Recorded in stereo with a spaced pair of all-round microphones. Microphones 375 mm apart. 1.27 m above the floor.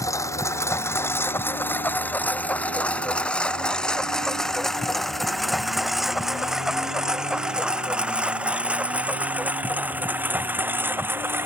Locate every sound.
0.0 s a lawn mower: 10° left (ahead or behind); by 11.5 s 5° right (ahead or behind)